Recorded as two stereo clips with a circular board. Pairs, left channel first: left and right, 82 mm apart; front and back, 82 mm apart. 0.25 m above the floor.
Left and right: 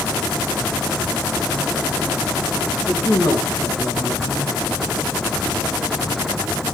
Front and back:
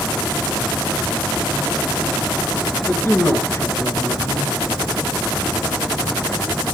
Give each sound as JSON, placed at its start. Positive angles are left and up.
{"t": 2.9, "sound": "a man speaking", "azimuth_deg": 55, "distance_m": 3.0}